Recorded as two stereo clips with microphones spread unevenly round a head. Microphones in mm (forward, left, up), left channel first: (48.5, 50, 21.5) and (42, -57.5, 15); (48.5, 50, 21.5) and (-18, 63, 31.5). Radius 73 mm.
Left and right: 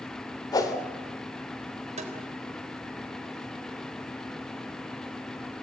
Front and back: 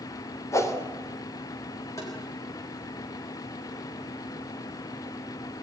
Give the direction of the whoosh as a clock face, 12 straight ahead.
11 o'clock.